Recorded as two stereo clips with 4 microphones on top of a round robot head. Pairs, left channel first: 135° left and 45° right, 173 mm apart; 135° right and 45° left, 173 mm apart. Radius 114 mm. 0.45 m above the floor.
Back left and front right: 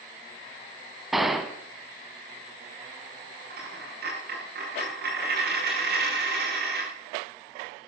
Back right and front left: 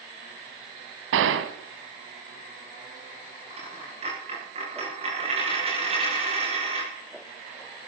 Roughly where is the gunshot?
Ahead left.